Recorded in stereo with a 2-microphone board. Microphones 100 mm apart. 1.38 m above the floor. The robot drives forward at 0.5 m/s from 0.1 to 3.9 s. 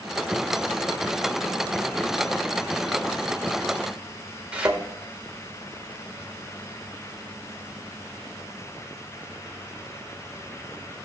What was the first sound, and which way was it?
A thud, 10° right (ahead or behind).